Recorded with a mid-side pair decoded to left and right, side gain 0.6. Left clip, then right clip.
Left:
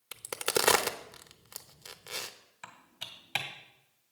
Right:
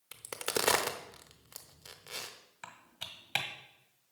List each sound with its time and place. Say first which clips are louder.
0.1 s a crack: left 4 dB; 20° left, 0.8 m
2.6 s typing on a keyboard: left 1 dB; 10° right, 1.6 m